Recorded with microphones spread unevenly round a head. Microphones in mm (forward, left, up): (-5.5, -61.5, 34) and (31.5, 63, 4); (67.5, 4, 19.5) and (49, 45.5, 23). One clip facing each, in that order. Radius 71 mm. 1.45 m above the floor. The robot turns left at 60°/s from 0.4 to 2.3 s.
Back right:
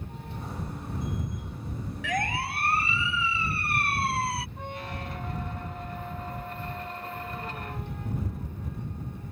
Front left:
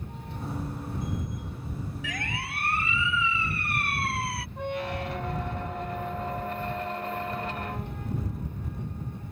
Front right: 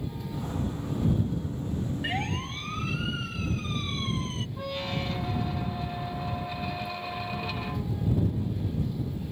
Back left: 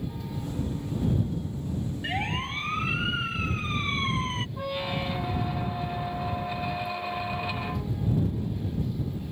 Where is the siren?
150° right; by 4.5 s 175° right.